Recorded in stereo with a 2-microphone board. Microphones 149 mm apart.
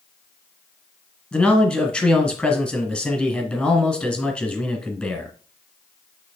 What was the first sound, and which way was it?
A man speaking, 5° left (ahead or behind).